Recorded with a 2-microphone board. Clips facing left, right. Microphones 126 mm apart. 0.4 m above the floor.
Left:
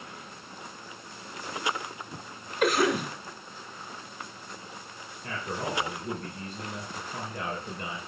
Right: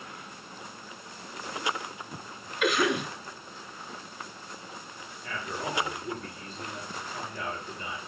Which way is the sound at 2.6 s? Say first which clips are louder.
Left 2 dB; 40° left (ahead or behind).